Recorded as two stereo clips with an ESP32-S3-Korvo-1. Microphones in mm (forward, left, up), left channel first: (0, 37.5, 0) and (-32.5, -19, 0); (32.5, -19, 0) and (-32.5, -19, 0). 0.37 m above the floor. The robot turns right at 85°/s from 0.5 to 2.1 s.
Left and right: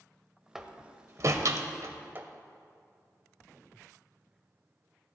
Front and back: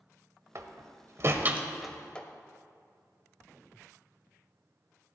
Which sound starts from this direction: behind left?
A door slam, at 0.6 s.